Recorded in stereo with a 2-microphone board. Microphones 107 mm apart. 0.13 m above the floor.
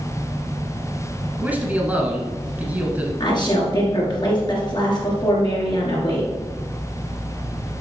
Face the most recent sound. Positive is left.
turn(degrees=45)  # may be behind; listen again after turning